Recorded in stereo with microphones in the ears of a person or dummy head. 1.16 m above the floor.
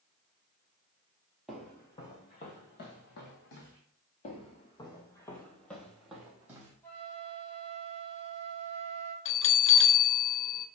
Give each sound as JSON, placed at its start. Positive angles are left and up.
{"t": 1.5, "sound": "footsteps", "side_deg": 5, "distance_m": 1.3}
{"t": 4.2, "sound": "footsteps", "side_deg": 45, "distance_m": 1.9}
{"t": 6.8, "sound": "a flute", "side_deg": 15, "distance_m": 2.5}
{"t": 9.2, "sound": "a bell", "side_deg": 60, "distance_m": 0.7}